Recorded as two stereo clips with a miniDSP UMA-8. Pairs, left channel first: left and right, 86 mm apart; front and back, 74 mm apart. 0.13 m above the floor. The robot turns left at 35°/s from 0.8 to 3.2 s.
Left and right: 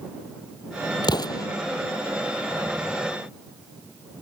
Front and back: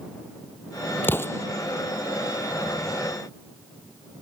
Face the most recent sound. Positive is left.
turn(degrees=-15)